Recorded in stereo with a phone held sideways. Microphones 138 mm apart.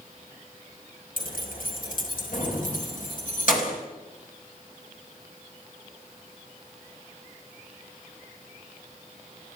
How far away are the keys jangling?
About 3.5 m.